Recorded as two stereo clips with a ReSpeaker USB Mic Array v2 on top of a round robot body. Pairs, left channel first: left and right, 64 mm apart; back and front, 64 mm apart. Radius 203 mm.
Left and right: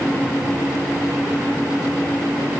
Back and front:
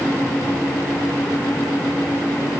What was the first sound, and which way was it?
Only background noise.